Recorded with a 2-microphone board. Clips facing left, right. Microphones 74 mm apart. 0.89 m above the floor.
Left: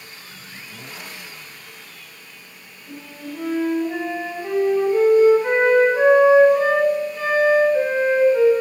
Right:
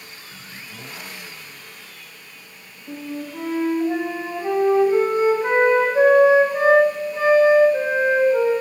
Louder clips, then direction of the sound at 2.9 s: Right 4 dB; 35° right (ahead or behind).